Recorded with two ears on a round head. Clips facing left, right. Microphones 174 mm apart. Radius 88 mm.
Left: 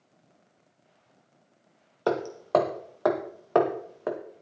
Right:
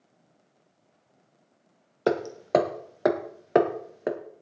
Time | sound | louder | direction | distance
2.1 | hammering | right 2 dB | 25° right (ahead or behind) | 1.6 m